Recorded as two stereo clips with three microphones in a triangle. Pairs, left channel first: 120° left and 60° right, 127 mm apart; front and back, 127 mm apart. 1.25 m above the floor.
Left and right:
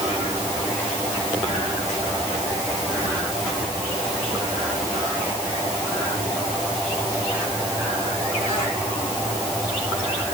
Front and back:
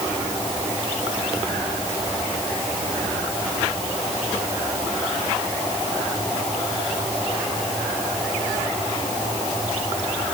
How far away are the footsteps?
No footsteps in this recording.